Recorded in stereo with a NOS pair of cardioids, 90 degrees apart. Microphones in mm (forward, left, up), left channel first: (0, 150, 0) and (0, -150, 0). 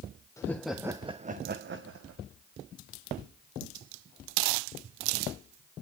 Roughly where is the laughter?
Ahead.